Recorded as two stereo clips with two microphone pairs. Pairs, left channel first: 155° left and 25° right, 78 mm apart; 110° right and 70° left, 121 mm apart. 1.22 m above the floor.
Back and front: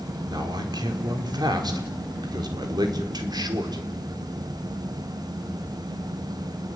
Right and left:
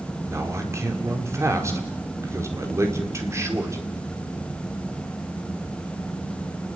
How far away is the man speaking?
About 4.5 m.